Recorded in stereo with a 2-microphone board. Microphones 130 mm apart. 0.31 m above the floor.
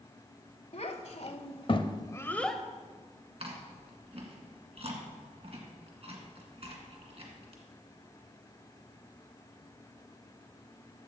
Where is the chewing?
55° right (ahead or behind), 1.9 m.